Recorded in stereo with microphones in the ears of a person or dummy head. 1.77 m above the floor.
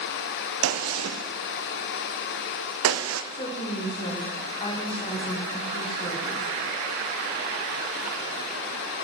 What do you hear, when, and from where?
0.6 s a gunshot: 80° right, 0.8 m
3.3 s a woman speaking: 30° left (ahead or behind), 1.2 m